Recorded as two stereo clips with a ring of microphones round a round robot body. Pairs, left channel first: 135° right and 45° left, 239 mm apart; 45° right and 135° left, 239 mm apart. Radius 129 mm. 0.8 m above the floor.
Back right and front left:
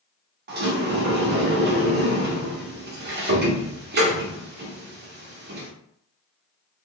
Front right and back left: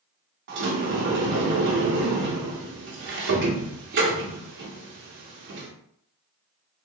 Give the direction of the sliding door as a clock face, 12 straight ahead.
9 o'clock.